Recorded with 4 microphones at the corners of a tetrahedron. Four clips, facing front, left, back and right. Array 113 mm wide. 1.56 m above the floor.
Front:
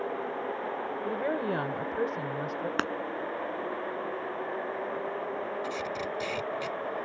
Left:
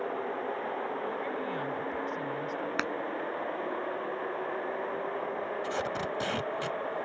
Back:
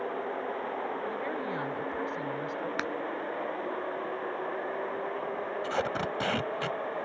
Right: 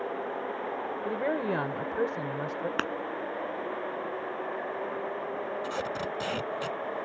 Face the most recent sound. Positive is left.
turn(degrees=180)